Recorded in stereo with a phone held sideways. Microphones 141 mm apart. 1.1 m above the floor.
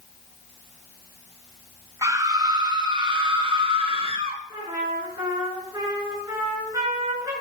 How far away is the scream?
About 1.4 m.